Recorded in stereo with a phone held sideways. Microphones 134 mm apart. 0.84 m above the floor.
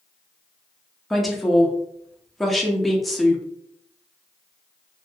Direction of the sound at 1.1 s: Centre (ahead or behind).